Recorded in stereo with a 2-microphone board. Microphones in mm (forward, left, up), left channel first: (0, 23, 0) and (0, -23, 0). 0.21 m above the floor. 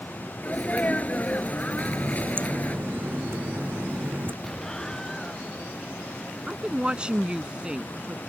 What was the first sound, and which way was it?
A sneeze, 35° left (ahead or behind).